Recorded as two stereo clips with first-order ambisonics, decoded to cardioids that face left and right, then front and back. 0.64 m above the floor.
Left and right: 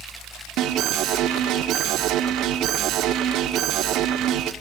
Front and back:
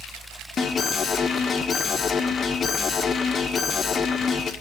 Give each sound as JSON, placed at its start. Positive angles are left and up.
{"t": 0.6, "sound": "an alarm", "azimuth_deg": -65, "distance_m": 1.5}